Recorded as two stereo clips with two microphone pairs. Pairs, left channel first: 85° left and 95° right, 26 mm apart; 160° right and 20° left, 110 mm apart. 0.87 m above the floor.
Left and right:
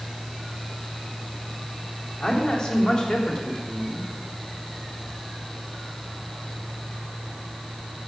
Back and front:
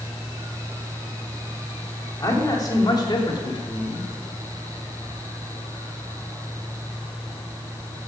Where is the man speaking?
140° left, 3 m; by 4.0 s 160° left, 2 m.